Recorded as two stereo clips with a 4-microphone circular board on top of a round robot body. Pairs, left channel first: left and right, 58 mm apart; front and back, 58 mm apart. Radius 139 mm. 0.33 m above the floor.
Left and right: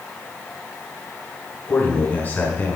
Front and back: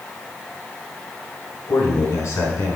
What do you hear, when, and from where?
1.7 s a man speaking: 30° left, 5 m